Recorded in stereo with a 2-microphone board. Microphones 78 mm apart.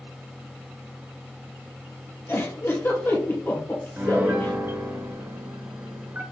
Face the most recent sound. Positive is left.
turn(degrees=-30)  # may be behind; listen again after turning